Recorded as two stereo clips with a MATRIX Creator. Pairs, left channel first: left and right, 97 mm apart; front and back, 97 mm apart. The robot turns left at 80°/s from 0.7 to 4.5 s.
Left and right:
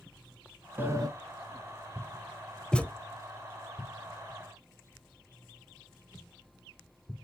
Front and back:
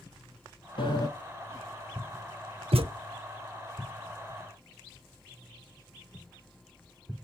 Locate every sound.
0.8 s a sliding door: 20° right, 0.9 m; by 1.1 s 45° right, 0.9 m
2.7 s a thud: 170° left, 0.5 m; by 2.9 s 155° left, 0.5 m